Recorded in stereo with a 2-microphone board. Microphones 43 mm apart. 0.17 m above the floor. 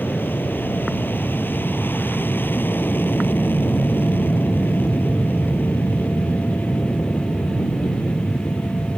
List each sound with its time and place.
0.0 s an aircraft: 50° left (ahead or behind)